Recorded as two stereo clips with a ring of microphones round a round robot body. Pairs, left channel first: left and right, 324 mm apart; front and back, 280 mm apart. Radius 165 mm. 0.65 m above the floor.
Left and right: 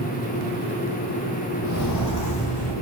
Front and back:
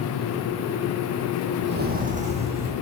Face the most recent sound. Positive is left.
turn(degrees=110)